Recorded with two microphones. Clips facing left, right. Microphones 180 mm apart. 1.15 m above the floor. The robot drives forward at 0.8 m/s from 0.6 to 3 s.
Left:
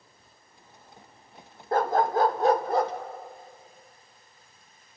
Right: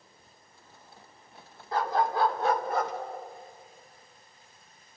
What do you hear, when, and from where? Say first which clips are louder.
1.7 s a dog barking: left 4 dB; 50° left (ahead or behind), 1.0 m; by 2.9 s 30° left (ahead or behind), 1.5 m